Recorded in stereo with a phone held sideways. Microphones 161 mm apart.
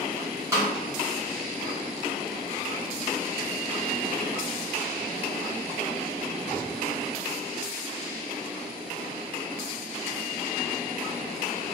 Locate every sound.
0.5 s a snare drum: 20° right (ahead or behind), 1.2 m